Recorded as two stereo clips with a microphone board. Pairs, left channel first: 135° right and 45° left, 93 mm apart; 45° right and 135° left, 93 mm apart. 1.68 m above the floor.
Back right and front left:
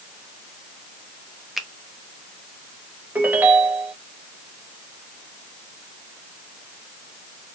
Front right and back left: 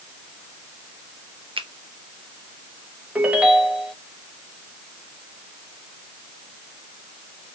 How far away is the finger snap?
About 0.7 m.